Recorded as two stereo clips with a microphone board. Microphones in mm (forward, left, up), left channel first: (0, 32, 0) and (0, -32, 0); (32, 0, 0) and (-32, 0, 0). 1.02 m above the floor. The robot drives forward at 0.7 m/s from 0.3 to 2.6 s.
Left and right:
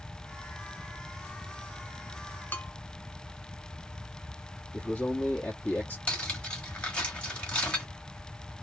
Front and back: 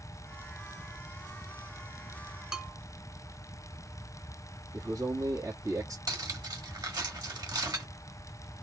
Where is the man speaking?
155° left, 1.9 m.